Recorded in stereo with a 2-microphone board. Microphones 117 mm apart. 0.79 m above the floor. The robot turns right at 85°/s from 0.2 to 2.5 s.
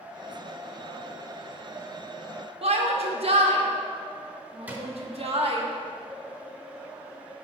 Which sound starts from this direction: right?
A shout, at 2.6 s.